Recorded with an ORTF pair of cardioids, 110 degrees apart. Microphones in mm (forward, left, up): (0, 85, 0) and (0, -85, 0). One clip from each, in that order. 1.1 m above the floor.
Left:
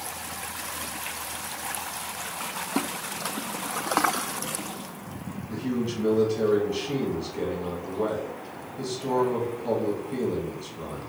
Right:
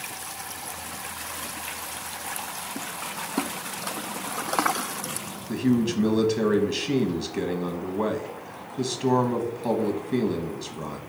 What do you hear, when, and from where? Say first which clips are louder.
5.5 s a man speaking: right 5 dB; 60° right, 1.1 m